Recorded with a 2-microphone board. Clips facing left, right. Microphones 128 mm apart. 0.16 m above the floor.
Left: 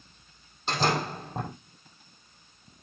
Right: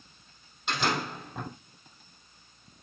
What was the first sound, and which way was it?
A door slam, 35° left (ahead or behind).